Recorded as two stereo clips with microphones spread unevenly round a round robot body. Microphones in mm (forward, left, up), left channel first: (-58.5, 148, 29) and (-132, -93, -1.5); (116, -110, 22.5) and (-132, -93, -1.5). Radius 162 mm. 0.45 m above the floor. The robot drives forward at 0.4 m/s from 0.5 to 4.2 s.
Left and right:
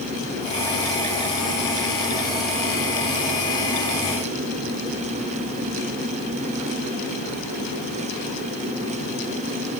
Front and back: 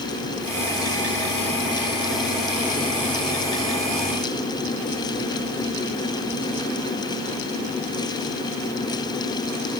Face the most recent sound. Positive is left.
No sound to turn to.